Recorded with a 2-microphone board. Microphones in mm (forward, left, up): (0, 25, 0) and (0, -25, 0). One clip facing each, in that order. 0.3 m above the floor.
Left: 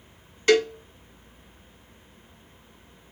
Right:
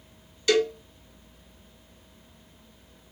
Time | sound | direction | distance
0.5 | a cowbell | 45° left (ahead or behind) | 1.2 m